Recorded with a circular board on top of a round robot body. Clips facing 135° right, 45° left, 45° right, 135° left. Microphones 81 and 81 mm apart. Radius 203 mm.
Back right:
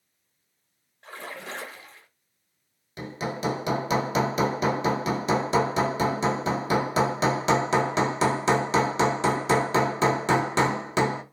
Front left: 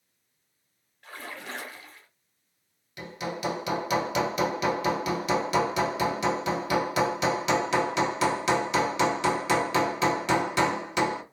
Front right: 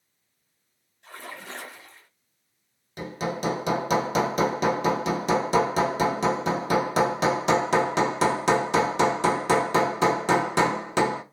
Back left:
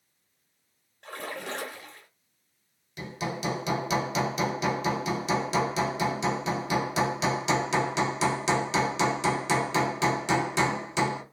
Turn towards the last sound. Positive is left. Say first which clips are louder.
# back right 2 dB, front right 4 dB
turn(degrees=-80)